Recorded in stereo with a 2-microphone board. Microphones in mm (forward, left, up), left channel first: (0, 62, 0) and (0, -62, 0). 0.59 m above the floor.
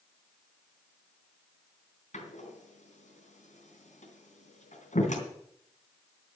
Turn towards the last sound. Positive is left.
turn(degrees=80)